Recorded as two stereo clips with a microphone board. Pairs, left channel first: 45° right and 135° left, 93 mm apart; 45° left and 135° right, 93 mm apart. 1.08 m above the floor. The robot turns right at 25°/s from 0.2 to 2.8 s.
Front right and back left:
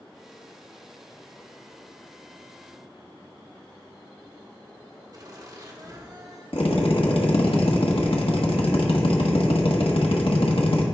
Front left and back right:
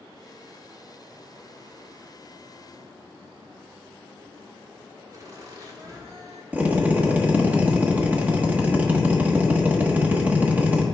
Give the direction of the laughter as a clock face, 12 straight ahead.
6 o'clock.